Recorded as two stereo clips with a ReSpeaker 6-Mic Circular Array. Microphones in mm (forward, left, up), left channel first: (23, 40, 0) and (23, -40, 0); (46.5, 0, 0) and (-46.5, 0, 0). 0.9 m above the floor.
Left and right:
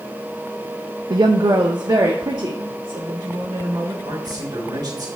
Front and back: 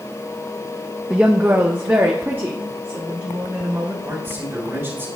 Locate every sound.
1.1 s a woman speaking: 105° right, 0.5 m; by 4.0 s 115° right, 2.5 m
4.0 s a man speaking: 115° right, 3.5 m